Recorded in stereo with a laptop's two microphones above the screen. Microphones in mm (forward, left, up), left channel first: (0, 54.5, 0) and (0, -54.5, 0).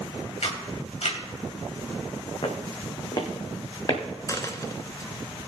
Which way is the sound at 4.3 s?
30° left (ahead or behind).